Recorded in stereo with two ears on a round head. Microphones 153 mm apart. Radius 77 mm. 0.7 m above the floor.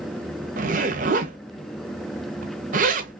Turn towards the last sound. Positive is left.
turn(degrees=-50)  # may be behind; listen again after turning